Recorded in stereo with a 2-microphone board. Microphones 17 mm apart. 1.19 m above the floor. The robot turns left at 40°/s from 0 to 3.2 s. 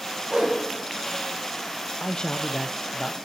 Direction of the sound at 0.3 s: 80° right.